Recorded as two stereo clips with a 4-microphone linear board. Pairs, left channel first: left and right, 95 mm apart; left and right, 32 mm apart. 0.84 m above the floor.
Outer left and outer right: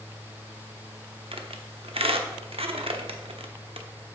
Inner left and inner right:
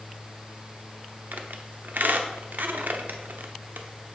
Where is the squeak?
75° right (ahead or behind), 1.0 m.